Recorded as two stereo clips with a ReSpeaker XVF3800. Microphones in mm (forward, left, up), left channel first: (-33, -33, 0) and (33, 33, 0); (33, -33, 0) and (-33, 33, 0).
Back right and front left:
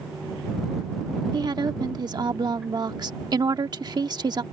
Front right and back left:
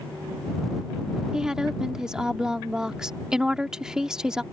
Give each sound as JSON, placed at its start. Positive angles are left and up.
{"t": 1.3, "sound": "a woman speaking", "azimuth_deg": 55}